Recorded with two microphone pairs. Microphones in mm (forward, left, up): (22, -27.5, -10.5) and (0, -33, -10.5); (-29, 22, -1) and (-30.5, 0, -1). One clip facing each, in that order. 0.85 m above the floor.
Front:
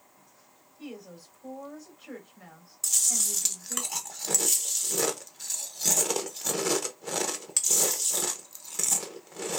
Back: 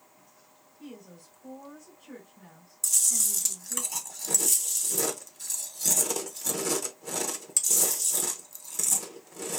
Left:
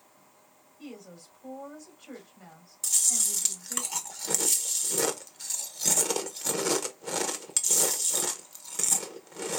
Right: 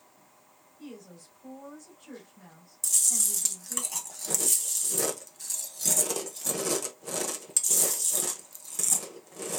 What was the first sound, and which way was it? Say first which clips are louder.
A woman speaking: front 3 dB, left 1 dB; 20° left.